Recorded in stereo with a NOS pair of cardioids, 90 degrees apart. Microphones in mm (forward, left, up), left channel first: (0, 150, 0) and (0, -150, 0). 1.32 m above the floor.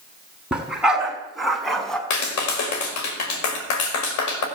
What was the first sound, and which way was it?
A dog barking, 5° right.